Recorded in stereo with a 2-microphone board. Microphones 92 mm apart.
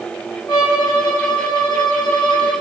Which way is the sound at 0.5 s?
55° left (ahead or behind).